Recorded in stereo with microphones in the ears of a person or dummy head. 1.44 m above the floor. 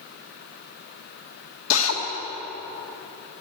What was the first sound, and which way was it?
A drill, 80° left.